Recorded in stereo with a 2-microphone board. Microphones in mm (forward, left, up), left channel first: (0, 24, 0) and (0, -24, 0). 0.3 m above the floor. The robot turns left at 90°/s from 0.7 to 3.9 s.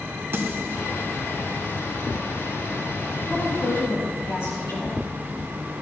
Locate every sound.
0.3 s a snare drum: 55° right (ahead or behind), 2.5 m; by 0.8 s 60° right (ahead or behind), 2.5 m
3.3 s a woman speaking: 165° left, 5 m; by 5.0 s 110° left, 5 m